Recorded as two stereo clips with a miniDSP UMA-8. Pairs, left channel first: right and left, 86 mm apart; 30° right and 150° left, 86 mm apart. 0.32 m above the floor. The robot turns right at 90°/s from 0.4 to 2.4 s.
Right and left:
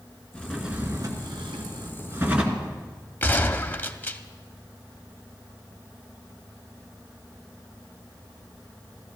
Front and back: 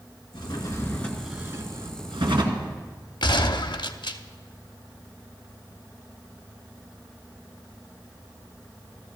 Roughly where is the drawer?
Ahead.